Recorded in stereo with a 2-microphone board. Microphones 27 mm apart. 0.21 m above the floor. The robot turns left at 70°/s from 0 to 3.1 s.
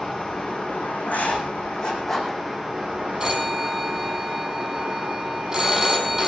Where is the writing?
85° left, 4.5 m; by 2.4 s 10° right (ahead or behind), 4.5 m.